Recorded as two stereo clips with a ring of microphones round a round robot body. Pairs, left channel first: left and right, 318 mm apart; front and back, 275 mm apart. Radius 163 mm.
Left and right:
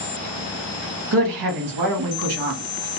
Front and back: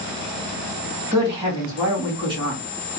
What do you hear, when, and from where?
1.1 s a woman speaking: 105° right, 1.4 m